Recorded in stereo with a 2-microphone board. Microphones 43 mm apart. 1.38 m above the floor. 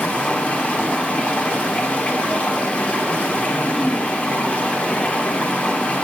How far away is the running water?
About 1.4 m.